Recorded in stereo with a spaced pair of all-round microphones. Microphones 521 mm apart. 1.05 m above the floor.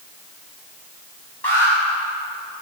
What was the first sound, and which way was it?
An alarm, 55° left (ahead or behind).